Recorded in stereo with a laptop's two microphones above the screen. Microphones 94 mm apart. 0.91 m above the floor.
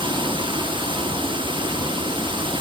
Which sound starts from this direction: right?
Running water, at 0.0 s.